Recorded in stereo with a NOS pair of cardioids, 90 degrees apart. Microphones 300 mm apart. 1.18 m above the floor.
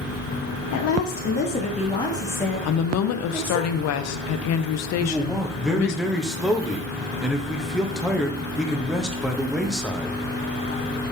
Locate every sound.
0.7 s a woman speaking: 70° left, 0.6 m; by 3.6 s 5° right, 1.6 m
2.6 s a woman speaking: 65° left, 0.5 m
5.0 s a man speaking: straight ahead, 0.9 m